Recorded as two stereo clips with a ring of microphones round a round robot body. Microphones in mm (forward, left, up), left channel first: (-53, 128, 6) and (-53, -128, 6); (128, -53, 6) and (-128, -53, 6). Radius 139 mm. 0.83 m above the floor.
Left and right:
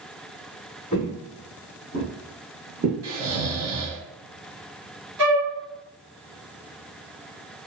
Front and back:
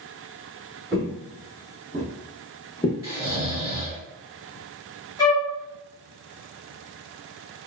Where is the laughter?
I don't hear laughter.